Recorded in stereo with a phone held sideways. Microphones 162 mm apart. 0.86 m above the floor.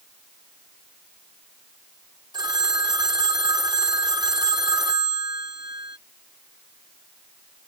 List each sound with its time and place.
2.3 s a phone ringing: 30° right (ahead or behind)